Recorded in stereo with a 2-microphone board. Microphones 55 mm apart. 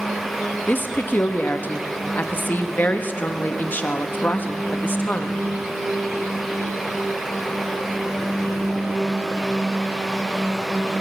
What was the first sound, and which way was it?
A woman speaking, 35° left (ahead or behind).